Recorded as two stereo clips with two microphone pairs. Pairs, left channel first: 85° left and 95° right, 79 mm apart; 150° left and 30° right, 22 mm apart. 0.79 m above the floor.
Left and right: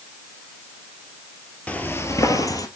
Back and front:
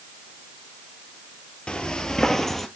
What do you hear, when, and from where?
1.7 s footsteps: 150° left, 1.0 m; by 2.7 s 65° left, 1.3 m